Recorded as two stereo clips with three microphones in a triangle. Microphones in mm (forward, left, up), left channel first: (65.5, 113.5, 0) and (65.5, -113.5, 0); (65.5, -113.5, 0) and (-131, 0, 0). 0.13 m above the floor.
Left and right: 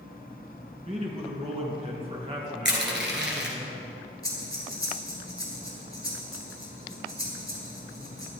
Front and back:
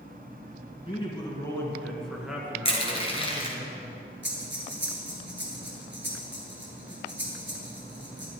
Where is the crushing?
90° right, 1.6 m.